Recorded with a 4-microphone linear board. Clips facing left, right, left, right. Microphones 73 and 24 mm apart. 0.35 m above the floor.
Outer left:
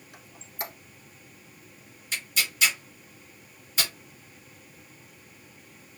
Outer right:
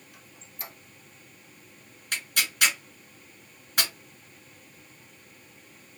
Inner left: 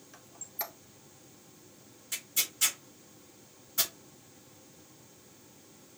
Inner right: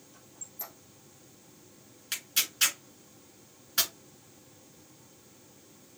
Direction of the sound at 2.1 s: 55° right (ahead or behind).